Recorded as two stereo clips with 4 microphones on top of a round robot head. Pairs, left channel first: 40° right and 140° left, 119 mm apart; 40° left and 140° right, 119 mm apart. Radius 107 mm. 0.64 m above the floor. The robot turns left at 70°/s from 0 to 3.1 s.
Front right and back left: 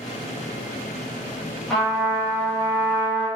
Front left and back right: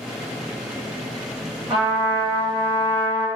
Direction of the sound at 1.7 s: 130° right.